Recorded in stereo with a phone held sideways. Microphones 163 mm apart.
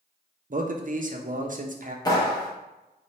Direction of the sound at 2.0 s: 25° left (ahead or behind).